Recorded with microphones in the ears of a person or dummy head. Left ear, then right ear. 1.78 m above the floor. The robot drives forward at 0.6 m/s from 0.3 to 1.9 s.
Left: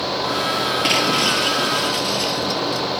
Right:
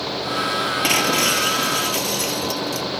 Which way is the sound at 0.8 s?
25° right (ahead or behind).